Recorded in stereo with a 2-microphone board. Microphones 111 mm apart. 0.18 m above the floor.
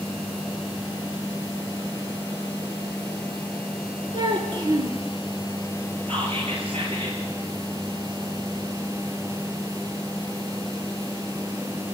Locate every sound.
4.1 s a child speaking: 50° right (ahead or behind), 2 m
6.1 s whispering: 65° right (ahead or behind), 4 m